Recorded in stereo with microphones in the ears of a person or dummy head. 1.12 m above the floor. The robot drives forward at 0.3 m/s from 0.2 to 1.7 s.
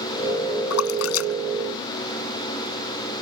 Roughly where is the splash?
Left.